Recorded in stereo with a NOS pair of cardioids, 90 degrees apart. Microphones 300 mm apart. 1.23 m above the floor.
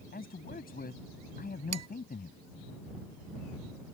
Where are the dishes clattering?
60° right.